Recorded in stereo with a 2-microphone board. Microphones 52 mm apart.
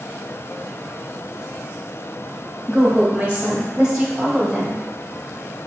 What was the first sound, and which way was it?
A woman speaking, 25° right (ahead or behind).